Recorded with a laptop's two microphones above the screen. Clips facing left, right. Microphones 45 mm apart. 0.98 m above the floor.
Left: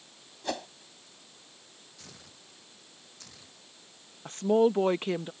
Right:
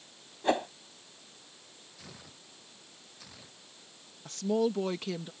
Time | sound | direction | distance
0.4 | a whoosh | 25° right (ahead or behind) | ?
2.0 | tearing paper | 5° right (ahead or behind) | ?
4.2 | a woman speaking | 30° left (ahead or behind) | ?